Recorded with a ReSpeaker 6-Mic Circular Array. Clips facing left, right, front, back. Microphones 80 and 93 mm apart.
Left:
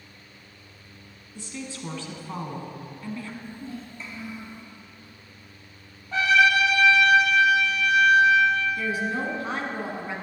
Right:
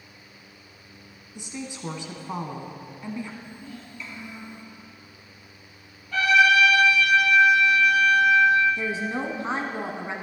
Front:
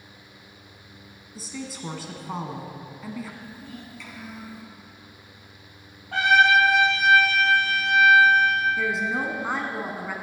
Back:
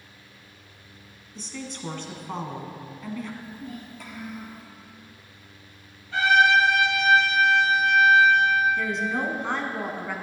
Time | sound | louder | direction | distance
1.4 | a woman speaking | right 1 dB, front 1 dB | 70° right | 1.0 m
3.4 | a child speaking | left 4 dB, back 2 dB | 140° left | 2.5 m
6.1 | a trumpet | right 1 dB, front 1 dB | 30° left | 4 m
8.8 | a woman speaking | left 1 dB, front 1 dB | 80° right | 1.1 m